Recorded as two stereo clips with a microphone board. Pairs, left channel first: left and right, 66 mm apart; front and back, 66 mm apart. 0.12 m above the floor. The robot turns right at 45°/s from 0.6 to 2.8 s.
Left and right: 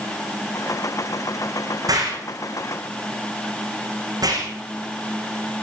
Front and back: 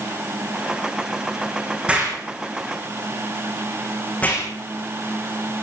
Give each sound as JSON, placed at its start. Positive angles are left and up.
{"t": 1.9, "sound": "an explosion", "azimuth_deg": -110, "distance_m": 7.5}